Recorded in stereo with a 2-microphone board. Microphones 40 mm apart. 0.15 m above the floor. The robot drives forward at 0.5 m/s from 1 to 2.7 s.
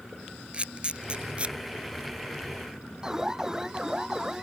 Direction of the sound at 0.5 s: 25° right (ahead or behind).